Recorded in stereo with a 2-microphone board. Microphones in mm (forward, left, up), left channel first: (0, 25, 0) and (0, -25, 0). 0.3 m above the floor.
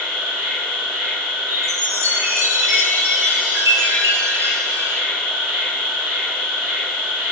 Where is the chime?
65° right (ahead or behind), 0.9 m.